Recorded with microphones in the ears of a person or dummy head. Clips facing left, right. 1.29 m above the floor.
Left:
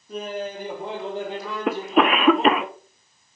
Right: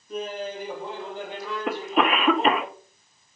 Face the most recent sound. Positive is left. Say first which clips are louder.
# left 4 dB
turn(degrees=60)  # may be behind; listen again after turning